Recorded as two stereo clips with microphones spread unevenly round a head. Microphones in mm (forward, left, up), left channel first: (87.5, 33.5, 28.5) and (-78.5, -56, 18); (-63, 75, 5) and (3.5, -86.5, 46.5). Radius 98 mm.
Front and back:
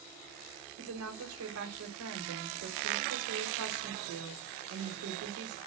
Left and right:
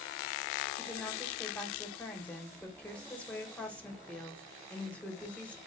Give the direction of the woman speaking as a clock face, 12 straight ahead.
5 o'clock.